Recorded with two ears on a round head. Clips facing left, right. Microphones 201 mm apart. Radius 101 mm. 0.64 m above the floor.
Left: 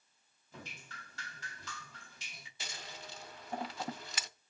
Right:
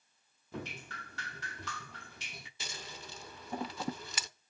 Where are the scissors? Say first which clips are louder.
Right 1 dB; 80° right, 0.7 m.